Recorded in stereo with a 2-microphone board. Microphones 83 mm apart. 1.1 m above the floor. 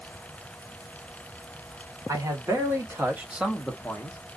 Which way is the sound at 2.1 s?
45° right (ahead or behind).